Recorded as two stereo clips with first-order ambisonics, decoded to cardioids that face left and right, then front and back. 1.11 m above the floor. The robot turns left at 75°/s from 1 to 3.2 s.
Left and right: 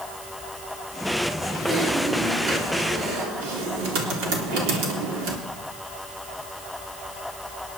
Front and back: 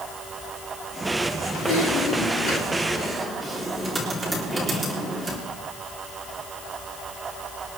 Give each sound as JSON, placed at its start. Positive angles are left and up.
{"t": 1.5, "sound": "typing on a keyboard", "azimuth_deg": 25, "distance_m": 3.5}